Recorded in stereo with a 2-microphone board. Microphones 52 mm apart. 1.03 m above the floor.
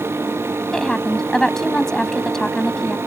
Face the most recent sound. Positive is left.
turn(degrees=10)  # may be behind; listen again after turning